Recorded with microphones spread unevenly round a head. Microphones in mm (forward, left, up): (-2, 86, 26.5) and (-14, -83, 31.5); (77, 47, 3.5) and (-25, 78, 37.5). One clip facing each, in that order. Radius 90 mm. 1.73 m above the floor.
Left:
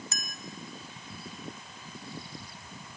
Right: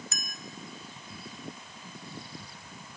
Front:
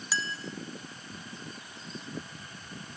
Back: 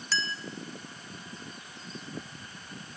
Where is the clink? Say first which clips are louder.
Left 1 dB, back 1 dB; 80° left, 0.8 m.